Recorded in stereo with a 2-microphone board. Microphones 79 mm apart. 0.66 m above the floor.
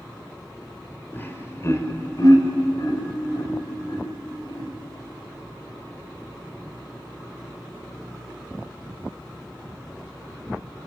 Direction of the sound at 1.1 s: 25° left (ahead or behind).